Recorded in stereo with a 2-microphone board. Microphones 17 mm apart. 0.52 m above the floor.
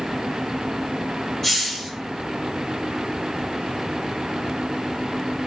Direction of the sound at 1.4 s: 15° left (ahead or behind).